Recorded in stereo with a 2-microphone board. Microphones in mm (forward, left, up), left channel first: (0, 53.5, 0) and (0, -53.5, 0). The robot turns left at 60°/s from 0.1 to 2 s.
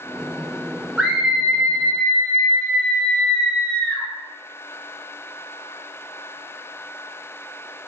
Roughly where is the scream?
Centre.